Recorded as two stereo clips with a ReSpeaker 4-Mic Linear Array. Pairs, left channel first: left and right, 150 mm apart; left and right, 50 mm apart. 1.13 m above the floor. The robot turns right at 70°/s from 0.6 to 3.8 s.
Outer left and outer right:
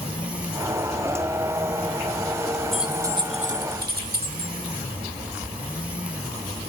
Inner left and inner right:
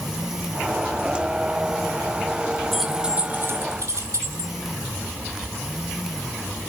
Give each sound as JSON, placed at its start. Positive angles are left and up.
{"t": 2.7, "sound": "keys jangling", "side_deg": 5, "distance_m": 1.9}